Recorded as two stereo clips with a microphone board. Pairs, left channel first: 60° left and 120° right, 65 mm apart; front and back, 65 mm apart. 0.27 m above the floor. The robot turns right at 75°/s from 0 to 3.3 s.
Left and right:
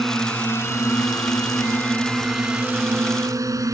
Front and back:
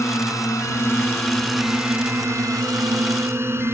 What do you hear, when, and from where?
0.0 s a drone: 30° right; by 3.7 s 135° right